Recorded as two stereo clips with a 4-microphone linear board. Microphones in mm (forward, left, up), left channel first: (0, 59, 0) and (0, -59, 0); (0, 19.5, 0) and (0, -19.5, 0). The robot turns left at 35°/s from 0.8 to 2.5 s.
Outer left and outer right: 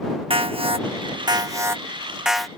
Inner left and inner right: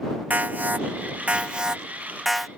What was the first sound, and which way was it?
An alarm, 125° right.